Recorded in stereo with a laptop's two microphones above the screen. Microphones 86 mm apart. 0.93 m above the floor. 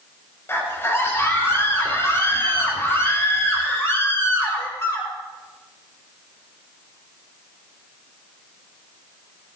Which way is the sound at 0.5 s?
30° left (ahead or behind).